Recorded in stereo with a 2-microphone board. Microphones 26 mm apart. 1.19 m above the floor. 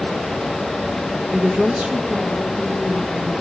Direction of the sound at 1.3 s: 80° right.